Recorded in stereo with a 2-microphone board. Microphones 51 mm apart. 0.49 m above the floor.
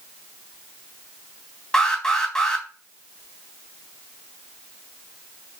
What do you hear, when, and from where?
1.7 s an alarm: 10° left (ahead or behind), 4 m